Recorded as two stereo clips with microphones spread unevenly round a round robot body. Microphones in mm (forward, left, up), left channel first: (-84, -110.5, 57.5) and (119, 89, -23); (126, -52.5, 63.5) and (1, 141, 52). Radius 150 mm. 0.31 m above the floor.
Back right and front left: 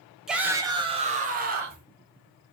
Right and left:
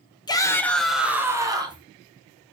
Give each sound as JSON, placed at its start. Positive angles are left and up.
{"t": 0.3, "sound": "a shout", "azimuth_deg": 0, "distance_m": 0.9}